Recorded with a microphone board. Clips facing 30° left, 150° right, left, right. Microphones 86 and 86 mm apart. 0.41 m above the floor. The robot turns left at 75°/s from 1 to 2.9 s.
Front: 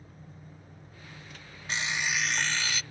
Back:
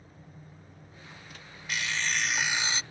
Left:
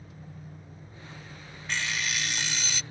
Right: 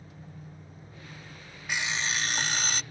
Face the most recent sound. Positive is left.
turn(degrees=-110)